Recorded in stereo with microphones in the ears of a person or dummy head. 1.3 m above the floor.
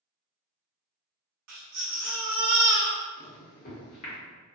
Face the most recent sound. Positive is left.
turn(degrees=55)  # may be behind; listen again after turning